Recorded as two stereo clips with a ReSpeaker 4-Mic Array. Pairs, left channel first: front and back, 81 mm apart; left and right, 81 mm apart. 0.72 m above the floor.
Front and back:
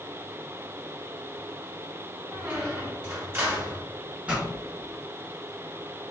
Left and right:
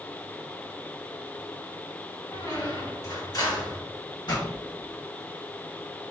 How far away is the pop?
About 1.6 m.